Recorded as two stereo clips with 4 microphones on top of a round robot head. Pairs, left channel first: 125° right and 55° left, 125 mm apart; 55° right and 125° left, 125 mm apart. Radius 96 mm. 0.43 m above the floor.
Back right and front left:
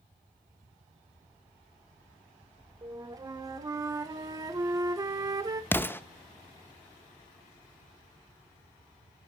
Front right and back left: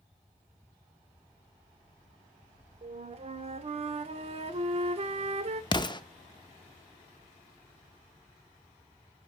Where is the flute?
110° left, 0.6 m.